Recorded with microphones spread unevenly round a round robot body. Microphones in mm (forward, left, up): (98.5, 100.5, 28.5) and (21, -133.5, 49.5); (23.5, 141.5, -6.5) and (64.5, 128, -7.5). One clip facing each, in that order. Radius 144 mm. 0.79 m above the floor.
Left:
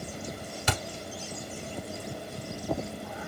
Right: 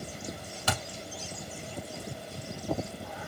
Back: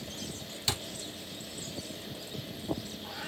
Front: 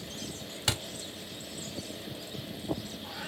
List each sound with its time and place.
0.7 s a thud: 5° right, 1.3 m